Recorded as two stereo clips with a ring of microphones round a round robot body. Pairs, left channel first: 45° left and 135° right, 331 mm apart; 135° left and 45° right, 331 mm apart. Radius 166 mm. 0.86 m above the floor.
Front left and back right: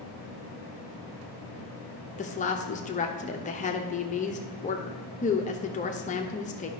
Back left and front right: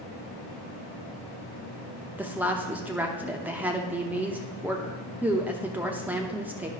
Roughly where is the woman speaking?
Ahead left.